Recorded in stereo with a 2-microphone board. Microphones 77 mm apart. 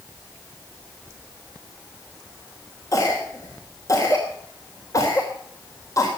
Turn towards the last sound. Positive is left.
turn(degrees=45)  # may be behind; listen again after turning